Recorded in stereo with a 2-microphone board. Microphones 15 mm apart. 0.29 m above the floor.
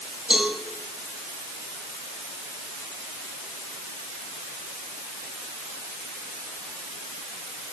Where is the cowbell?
80° right, 6 m.